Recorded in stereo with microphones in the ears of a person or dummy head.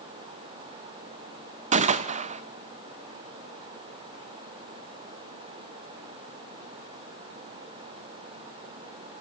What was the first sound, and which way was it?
A gunshot, 40° right (ahead or behind).